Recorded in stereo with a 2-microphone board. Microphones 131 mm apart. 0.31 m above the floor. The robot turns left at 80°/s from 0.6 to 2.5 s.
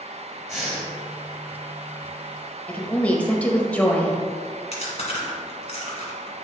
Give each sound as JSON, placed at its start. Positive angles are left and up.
{"t": 0.5, "sound": "breathing", "side_deg": 0, "distance_m": 2.0}
{"t": 2.7, "sound": "a woman speaking", "side_deg": 10, "distance_m": 1.0}
{"t": 4.7, "sound": "chewing", "side_deg": 55, "distance_m": 1.7}